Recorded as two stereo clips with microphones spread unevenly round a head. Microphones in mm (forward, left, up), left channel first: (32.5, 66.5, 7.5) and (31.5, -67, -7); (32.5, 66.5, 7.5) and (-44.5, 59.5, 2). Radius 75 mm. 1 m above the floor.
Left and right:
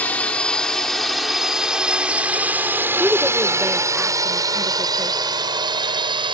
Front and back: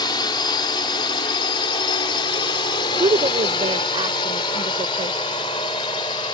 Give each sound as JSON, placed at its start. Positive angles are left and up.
{"t": 0.0, "sound": "a drone", "azimuth_deg": 15}
{"t": 3.0, "sound": "a woman speaking", "azimuth_deg": -175}